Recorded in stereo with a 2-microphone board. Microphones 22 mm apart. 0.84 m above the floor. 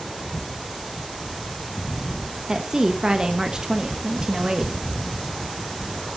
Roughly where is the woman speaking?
Right.